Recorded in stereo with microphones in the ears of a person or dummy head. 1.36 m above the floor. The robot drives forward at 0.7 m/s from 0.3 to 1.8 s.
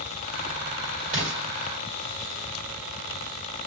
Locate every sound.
1.1 s an explosion: 35° right (ahead or behind), 1.4 m; by 1.4 s 30° right (ahead or behind), 1.6 m